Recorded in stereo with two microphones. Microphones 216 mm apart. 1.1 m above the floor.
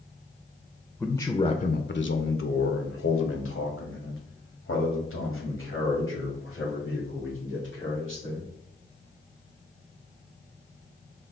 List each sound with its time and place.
1.0 s a man speaking: centre (ahead or behind), 0.5 m; by 8.5 s 65° left (ahead or behind), 4 m